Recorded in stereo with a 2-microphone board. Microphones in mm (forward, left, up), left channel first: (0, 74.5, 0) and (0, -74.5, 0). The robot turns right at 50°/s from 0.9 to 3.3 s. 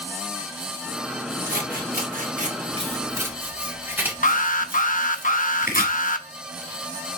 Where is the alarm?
65° left (ahead or behind), 0.7 m.